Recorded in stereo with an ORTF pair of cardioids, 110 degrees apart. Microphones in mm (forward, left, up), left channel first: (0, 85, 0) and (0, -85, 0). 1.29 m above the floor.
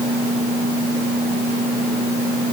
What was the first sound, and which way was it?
Only background noise.